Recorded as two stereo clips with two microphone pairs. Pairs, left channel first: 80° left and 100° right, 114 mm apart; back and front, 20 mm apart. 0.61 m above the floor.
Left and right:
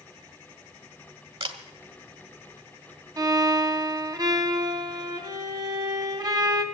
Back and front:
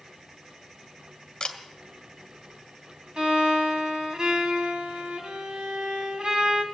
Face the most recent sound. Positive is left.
turn(degrees=-45)